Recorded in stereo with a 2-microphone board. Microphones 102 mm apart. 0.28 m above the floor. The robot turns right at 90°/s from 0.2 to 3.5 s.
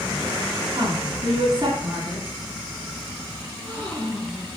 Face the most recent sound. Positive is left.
turn(degrees=20)  # may be behind; listen again after turning